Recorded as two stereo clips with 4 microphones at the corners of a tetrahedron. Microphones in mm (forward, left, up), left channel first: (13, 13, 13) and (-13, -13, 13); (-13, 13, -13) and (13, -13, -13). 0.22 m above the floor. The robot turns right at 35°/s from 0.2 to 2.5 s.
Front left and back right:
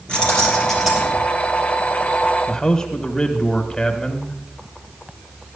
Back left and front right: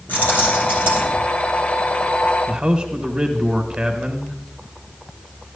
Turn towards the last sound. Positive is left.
turn(degrees=0)